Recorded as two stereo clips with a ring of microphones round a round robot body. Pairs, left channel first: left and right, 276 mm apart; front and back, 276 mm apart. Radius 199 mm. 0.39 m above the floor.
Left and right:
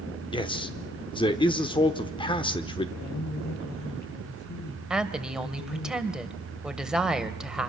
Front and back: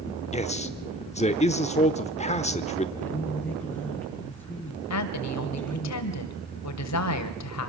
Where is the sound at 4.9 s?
5° right, 2 m.